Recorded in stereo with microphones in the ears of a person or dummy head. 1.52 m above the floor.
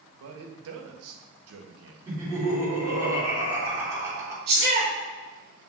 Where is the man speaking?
70° right (ahead or behind), 1.3 m.